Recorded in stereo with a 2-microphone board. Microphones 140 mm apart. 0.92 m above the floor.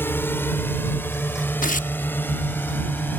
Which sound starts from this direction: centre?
A drone, at 0.0 s.